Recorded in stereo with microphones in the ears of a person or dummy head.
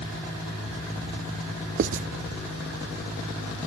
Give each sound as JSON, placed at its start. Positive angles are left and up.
{"t": 1.8, "sound": "writing", "side_deg": -45}